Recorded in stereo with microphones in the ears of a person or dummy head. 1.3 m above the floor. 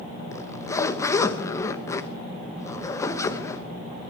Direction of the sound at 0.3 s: 20° left (ahead or behind).